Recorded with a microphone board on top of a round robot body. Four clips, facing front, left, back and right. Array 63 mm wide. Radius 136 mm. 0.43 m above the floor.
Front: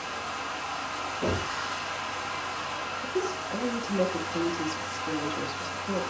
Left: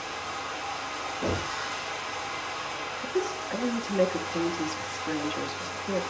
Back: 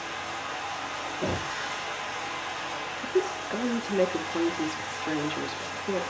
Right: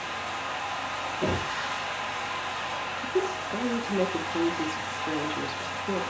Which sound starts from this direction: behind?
A woman speaking, at 3.0 s.